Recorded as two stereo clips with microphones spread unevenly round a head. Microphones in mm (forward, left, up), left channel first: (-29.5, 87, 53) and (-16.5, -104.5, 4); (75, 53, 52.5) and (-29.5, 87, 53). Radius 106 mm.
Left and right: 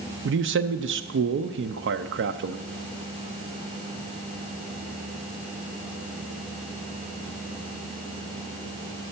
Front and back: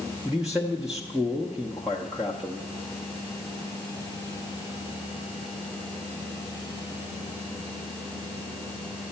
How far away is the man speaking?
About 0.5 m.